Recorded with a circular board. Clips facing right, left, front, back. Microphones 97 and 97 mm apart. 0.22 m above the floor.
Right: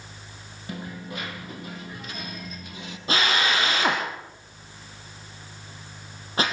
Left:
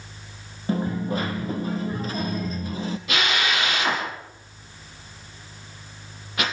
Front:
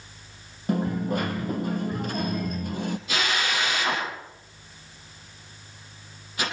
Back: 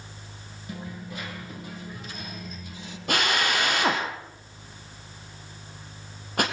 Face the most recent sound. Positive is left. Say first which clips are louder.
# right 2 dB, back 5 dB
turn(degrees=-150)